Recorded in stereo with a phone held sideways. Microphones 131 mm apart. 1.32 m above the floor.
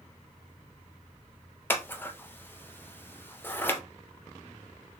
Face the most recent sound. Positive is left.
turn(degrees=15)  # may be behind; listen again after turning